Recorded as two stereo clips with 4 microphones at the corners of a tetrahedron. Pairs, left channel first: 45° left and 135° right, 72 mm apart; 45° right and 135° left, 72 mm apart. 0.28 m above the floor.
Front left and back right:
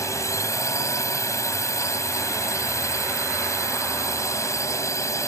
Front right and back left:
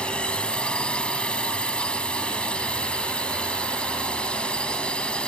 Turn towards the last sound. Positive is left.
turn(degrees=25)